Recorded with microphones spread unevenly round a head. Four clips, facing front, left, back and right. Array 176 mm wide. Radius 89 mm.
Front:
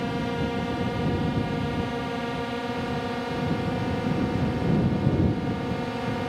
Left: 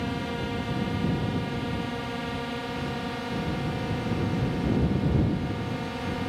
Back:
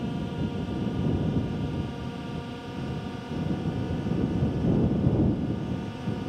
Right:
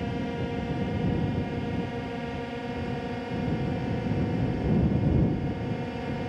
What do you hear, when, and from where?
0.0 s a drone: 10° right